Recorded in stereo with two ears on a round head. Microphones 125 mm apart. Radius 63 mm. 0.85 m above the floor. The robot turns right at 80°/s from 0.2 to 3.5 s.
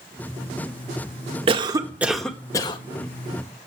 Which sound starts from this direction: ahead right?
A cough, at 1.5 s.